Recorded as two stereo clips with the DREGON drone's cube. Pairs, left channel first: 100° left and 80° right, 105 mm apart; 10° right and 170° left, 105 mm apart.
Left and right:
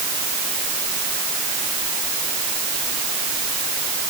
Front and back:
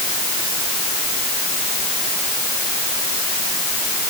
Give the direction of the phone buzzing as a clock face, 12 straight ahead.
I don't hear a phone buzzing.